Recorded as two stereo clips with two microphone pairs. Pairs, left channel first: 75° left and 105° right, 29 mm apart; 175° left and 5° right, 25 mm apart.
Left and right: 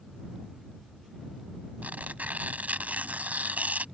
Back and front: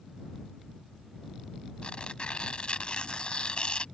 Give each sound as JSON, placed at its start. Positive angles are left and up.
{"t": 1.8, "sound": "tearing paper", "azimuth_deg": -135}